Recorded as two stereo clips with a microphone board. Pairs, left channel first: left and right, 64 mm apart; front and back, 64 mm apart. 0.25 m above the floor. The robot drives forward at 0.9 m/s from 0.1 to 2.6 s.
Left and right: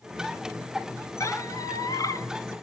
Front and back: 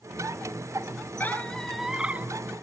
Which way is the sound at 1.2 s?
55° left.